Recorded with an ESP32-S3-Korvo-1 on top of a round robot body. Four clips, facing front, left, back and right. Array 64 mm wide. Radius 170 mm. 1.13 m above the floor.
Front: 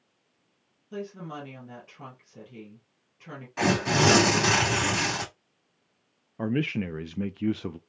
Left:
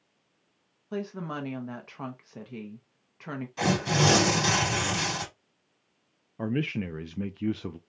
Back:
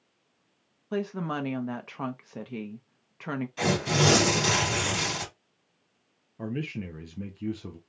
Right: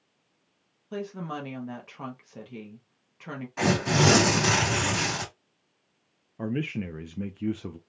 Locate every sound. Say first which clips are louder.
0.9 s a woman speaking: even, back 6 dB; 165° left, 1.0 m
3.6 s tearing paper: right 2 dB, front 3 dB; 35° right, 2 m
6.4 s a man speaking: left 1 dB, front 6 dB; 15° left, 0.6 m